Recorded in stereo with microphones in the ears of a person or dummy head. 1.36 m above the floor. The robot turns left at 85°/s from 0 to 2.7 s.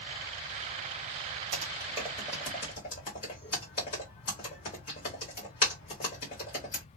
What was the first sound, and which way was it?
Typing on a keyboard, 55° right (ahead or behind).